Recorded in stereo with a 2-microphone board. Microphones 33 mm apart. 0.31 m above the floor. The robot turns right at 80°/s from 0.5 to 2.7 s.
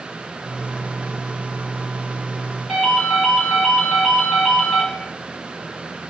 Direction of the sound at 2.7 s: 5° left (ahead or behind).